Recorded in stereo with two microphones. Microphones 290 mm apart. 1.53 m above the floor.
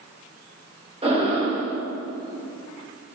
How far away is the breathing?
About 2 m.